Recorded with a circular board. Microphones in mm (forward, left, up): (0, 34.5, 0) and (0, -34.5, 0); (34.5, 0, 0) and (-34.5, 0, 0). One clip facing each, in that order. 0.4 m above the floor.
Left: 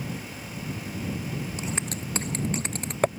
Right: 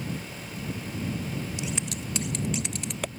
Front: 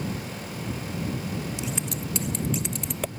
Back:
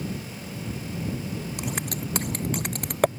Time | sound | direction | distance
1.6 | scissors | 145° left | ?